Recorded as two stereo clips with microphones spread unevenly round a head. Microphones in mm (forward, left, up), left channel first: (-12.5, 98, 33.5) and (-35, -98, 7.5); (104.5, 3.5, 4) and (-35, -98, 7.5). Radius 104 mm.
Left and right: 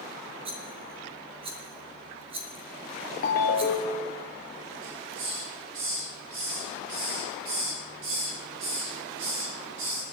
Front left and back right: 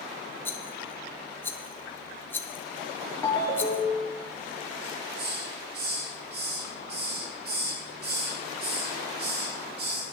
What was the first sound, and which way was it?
A rattle, 35° right.